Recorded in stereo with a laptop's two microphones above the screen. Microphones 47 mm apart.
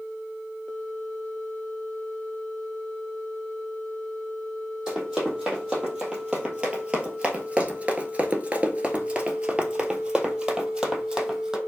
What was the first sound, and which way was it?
Running footsteps, 10° right (ahead or behind).